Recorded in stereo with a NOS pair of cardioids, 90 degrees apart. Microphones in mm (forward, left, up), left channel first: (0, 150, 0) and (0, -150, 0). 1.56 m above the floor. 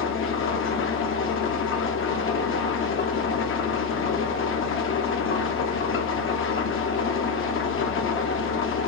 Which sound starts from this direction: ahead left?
An engine running, at 0.0 s.